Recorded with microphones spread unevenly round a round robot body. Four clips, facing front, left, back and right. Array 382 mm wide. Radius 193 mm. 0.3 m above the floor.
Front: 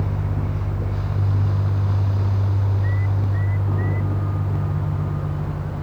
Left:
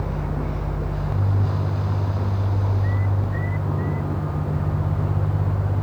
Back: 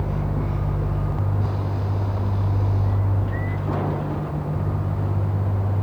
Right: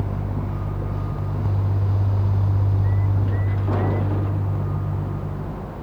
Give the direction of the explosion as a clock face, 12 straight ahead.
I don't hear an explosion.